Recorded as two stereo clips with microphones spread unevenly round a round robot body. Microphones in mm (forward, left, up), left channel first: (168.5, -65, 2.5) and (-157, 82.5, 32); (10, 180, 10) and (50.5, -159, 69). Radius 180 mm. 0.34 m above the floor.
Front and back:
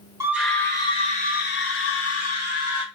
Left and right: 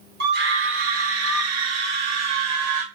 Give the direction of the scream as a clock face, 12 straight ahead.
4 o'clock.